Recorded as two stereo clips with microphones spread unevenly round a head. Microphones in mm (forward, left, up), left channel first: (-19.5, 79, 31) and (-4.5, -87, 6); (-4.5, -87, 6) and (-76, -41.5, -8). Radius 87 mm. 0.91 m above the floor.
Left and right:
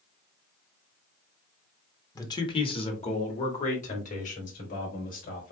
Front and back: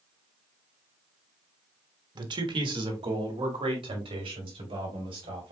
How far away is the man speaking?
About 1.2 m.